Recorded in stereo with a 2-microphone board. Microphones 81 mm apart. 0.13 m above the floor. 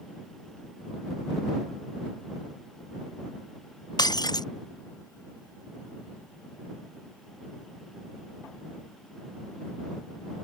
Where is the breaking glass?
60° left (ahead or behind).